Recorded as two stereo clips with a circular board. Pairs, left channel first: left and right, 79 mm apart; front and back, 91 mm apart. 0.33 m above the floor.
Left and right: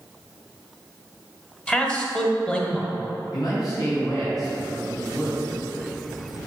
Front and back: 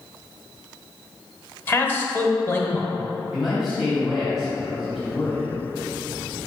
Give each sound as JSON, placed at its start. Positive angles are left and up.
{"t": 1.7, "sound": "a man speaking", "azimuth_deg": 30, "distance_m": 1.1}
{"t": 3.3, "sound": "a man speaking", "azimuth_deg": 95, "distance_m": 2.0}